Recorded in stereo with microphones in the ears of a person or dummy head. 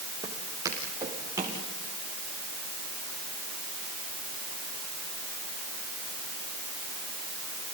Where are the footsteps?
20° right (ahead or behind), 5 m.